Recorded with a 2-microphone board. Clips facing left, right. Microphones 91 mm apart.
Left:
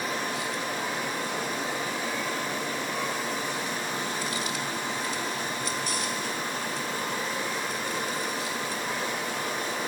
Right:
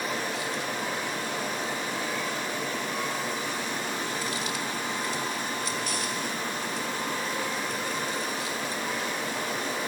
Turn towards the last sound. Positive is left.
No sound to turn to.